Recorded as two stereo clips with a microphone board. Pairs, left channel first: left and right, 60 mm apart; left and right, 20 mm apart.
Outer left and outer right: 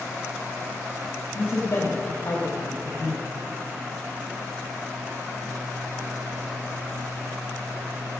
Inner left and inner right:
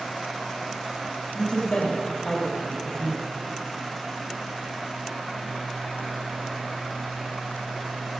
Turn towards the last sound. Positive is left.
turn(degrees=45)  # may be behind; listen again after turning